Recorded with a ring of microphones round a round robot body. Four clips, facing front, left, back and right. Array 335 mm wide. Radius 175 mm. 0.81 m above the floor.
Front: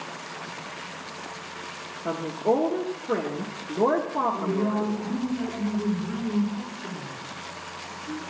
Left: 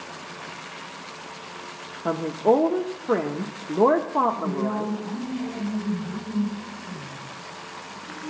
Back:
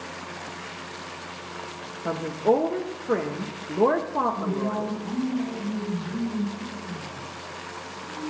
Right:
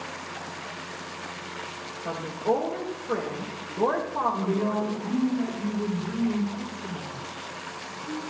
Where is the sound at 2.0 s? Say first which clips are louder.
Left 6 dB, back 2 dB; 100° left, 0.9 m.